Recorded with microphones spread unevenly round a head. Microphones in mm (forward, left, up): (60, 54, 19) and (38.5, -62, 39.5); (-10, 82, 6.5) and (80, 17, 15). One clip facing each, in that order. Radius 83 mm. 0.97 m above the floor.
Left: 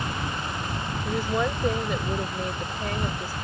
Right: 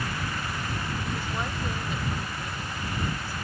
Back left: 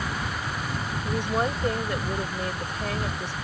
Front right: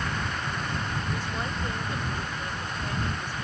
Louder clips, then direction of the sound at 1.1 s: Left 6 dB, back left 6 dB; 110° left.